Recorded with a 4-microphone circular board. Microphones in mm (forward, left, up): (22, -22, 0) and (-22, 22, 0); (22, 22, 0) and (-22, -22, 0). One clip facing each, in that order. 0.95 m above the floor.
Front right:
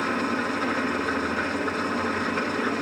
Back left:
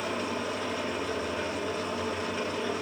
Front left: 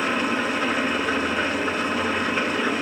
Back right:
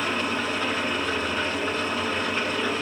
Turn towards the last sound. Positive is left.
turn(degrees=-40)